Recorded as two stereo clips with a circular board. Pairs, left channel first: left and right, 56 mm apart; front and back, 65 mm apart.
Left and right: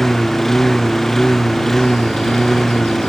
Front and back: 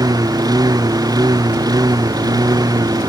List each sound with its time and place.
0.0 s a lawn mower: 175° left